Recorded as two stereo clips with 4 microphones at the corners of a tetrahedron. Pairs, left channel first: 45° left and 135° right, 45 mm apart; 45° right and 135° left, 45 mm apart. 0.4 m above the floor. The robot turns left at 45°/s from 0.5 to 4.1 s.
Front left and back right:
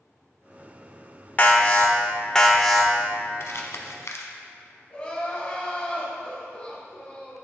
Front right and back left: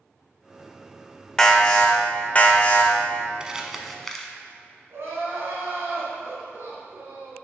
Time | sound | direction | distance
1.4 | an alarm | 20° left | 0.7 m
3.4 | crumpling | 65° left | 0.6 m
4.9 | crying | 110° left | 1.8 m